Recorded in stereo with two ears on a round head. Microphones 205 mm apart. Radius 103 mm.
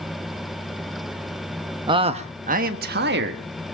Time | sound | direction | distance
1.9 | a man speaking | 20° right (ahead or behind) | 1.1 m